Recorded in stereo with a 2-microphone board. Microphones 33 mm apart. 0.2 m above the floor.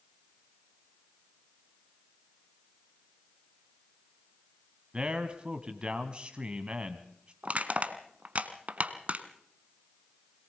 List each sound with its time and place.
4.9 s a man speaking: 30° right (ahead or behind), 1.3 m
7.4 s crushing: 45° right (ahead or behind), 1.1 m